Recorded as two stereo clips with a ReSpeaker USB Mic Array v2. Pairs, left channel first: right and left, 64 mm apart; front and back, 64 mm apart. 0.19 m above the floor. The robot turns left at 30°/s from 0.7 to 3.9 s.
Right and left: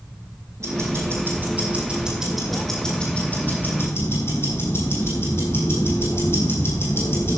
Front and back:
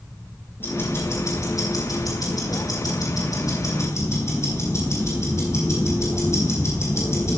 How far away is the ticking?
About 4.5 m.